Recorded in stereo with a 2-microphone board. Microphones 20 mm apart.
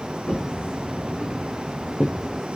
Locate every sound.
0.3 s footsteps: 85° left, 4 m; by 2.2 s 65° left (ahead or behind), 3.5 m